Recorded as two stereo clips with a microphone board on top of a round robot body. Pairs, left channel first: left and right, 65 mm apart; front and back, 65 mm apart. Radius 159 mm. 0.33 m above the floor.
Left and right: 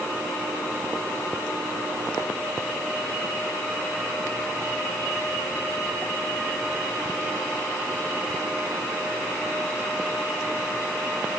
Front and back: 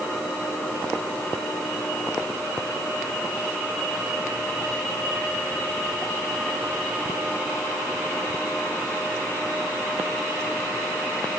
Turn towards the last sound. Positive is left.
No sound to turn to.